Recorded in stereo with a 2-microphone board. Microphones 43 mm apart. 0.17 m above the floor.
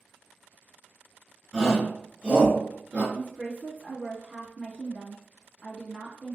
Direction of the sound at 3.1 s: 35° right (ahead or behind).